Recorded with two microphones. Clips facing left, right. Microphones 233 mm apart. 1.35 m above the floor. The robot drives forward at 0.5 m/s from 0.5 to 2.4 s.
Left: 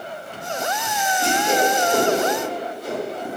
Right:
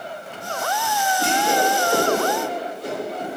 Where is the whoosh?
70° right (ahead or behind), 1.1 m; by 3.4 s 55° right (ahead or behind), 1.2 m.